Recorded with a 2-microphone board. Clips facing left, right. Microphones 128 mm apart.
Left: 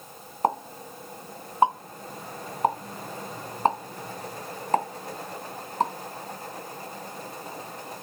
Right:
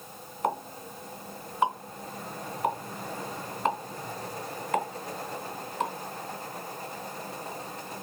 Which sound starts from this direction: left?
A pop, at 0.4 s.